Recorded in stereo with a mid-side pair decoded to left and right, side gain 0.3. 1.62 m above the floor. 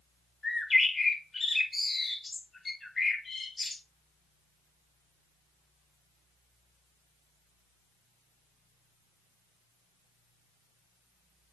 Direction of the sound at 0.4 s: 40° left.